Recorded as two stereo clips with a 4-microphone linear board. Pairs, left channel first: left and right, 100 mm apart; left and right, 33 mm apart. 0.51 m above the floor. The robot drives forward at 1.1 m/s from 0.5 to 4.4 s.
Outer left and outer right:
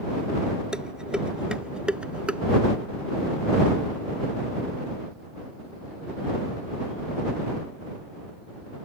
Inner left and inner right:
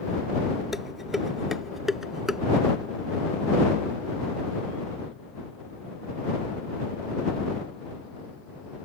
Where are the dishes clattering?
10° right (ahead or behind).